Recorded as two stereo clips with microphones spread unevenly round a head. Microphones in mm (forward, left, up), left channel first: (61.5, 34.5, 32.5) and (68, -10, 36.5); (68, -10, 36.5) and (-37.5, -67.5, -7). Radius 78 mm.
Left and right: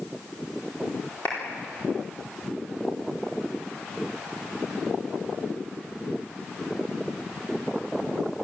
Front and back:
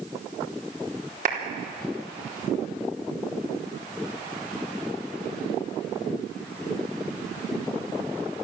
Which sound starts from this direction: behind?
A clap, at 1.2 s.